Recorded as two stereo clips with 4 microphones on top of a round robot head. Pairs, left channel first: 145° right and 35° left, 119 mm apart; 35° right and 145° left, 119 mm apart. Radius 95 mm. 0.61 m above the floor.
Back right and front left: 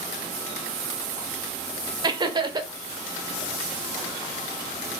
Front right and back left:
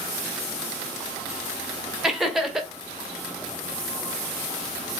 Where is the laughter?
60° left, 0.8 m.